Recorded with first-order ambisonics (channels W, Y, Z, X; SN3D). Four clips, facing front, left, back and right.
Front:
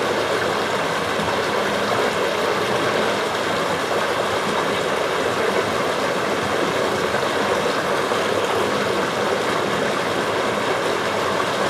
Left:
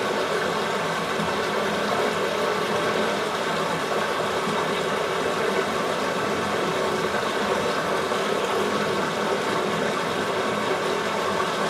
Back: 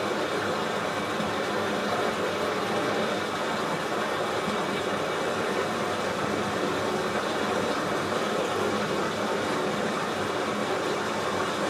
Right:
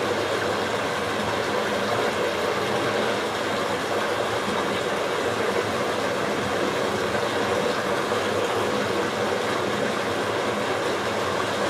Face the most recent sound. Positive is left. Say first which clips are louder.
# even, front 7 dB
turn(degrees=0)